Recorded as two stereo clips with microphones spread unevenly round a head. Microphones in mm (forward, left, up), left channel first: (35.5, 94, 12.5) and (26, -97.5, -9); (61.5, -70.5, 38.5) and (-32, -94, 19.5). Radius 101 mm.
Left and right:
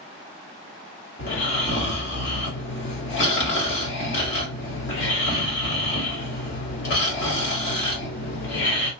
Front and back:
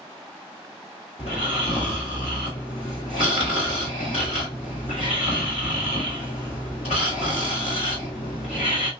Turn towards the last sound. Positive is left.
turn(degrees=65)